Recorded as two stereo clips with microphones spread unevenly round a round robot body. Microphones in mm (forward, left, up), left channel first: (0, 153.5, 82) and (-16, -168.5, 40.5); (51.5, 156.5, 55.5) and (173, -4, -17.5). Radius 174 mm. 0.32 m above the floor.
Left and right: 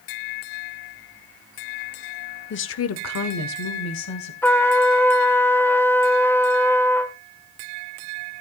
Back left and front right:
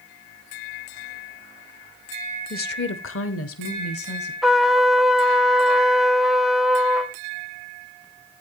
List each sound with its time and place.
2.5 s a woman speaking: 90° left, 0.9 m; by 4.3 s 125° left, 2 m
4.4 s a trumpet: 5° right, 1.1 m